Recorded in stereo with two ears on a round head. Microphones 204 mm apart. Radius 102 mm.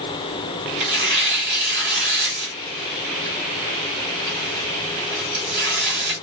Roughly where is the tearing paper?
Right.